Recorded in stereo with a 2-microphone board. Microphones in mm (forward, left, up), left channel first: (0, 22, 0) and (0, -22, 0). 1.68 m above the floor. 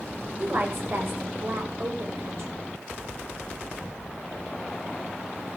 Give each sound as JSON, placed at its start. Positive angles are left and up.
{"t": 0.4, "sound": "a woman speaking", "side_deg": -55, "distance_m": 7.0}